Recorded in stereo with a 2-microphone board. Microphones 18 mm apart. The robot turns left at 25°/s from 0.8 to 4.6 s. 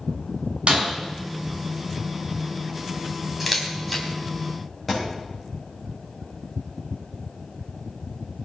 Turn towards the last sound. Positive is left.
turn(degrees=0)  # may be behind; listen again after turning